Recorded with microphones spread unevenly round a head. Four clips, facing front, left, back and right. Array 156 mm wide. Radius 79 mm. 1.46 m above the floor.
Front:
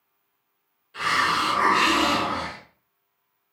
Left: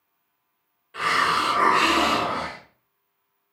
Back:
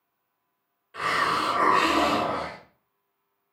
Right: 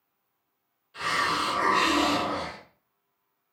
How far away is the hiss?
About 1.2 m.